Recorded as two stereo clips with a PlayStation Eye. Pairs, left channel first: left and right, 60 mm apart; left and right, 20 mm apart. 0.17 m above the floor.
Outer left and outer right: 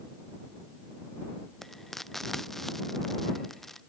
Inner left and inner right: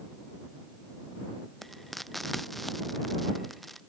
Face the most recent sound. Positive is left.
turn(degrees=5)  # may be behind; listen again after turning